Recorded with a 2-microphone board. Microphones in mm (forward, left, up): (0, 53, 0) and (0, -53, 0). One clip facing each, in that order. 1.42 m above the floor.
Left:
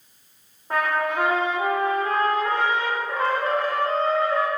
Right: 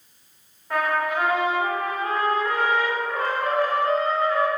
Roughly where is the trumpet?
Left.